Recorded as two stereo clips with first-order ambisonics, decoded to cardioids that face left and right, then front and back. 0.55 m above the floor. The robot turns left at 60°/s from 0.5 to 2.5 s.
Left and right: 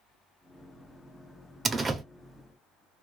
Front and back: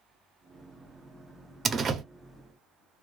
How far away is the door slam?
About 0.6 m.